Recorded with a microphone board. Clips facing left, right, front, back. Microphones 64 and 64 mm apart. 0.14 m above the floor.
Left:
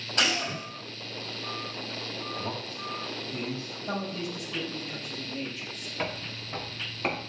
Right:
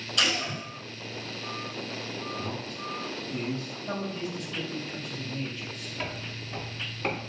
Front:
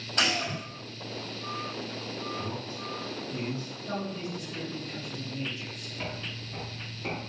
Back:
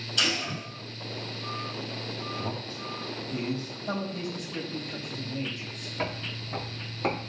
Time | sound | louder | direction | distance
0.2 | a gunshot | left 1 dB, front 1 dB | 40° left | 4.5 m
2.4 | a man speaking | even, back 1 dB | 150° left | 3.5 m
3.9 | a man speaking | even, back 2 dB | 165° left | 3.5 m
6.0 | footsteps | left 3 dB, back 5 dB | 150° left | 2.5 m